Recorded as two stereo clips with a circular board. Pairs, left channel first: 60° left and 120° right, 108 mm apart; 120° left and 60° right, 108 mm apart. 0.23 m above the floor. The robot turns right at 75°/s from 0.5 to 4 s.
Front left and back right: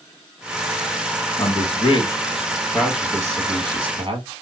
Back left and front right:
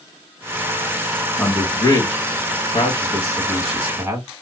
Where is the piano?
I don't hear a piano.